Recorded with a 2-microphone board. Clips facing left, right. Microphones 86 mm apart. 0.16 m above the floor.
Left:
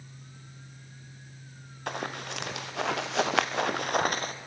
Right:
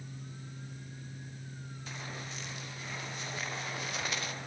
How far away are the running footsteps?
About 2.5 m.